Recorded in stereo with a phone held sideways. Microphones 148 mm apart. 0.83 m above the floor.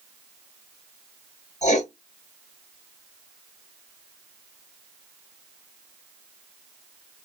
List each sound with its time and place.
1.6 s writing: 50° left (ahead or behind), 0.8 m